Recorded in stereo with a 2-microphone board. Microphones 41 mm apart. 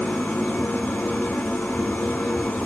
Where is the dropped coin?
No dropped coin in this recording.